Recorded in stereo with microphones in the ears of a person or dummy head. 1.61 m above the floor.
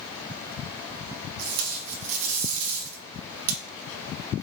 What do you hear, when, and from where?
1.4 s tape being pulled: 75° right (ahead or behind), 1.0 m